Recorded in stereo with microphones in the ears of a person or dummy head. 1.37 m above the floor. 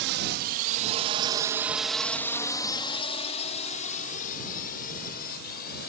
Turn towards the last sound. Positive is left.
turn(degrees=55)  # may be behind; listen again after turning